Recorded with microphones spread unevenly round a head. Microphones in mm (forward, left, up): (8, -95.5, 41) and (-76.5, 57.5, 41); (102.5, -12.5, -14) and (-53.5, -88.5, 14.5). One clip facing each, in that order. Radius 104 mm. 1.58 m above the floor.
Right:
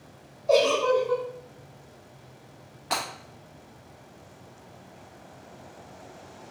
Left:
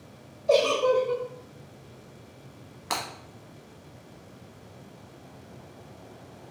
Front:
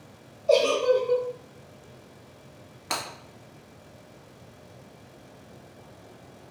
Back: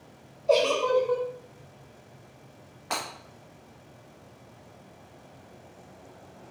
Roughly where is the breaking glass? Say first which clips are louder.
Right 2 dB, even; left.